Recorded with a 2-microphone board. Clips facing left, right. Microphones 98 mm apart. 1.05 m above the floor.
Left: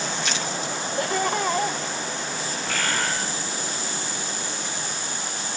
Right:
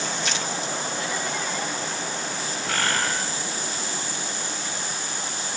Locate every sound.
1.0 s laughter: 55° left (ahead or behind), 1.0 m
2.6 s a bird: 75° right (ahead or behind), 6 m